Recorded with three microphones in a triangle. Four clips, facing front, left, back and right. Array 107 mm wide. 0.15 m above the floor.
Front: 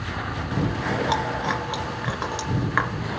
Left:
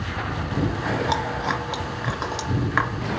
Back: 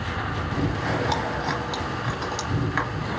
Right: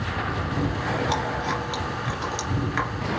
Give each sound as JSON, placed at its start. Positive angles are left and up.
{"t": 0.5, "sound": "chewing", "azimuth_deg": 40, "distance_m": 2.0}